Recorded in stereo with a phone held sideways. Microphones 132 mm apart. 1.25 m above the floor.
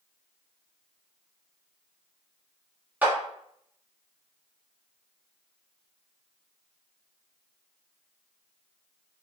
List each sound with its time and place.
3.0 s a clap: 10° right (ahead or behind), 1.1 m